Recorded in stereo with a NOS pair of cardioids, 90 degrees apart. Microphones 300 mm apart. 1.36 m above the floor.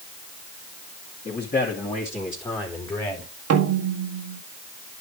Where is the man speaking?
30° left, 3 m; by 3.3 s 10° left, 3.5 m.